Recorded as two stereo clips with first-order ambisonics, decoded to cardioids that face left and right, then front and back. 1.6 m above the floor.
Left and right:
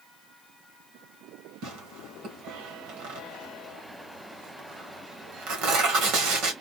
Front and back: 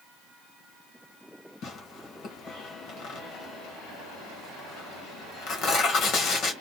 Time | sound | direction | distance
1.6 | tearing paper | 55° right | 1.9 m